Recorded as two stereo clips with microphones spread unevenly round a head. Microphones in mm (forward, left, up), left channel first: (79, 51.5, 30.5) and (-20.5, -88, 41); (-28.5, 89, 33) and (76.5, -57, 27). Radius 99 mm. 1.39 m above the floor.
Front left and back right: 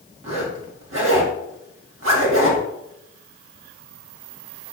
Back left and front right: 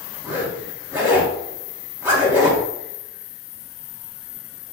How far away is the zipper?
About 1.8 m.